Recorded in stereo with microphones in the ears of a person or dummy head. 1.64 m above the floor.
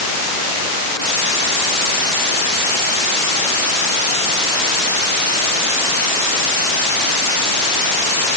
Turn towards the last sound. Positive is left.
No sound to turn to.